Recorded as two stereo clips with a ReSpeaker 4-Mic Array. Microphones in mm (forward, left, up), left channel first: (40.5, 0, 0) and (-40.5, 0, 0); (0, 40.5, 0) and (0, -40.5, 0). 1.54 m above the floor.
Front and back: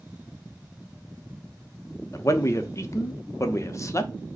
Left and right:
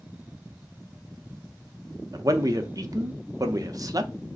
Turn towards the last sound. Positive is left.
turn(degrees=-50)